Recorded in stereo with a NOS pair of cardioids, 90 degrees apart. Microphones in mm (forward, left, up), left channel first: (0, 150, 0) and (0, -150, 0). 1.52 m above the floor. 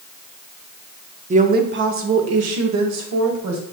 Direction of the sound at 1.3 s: 25° right.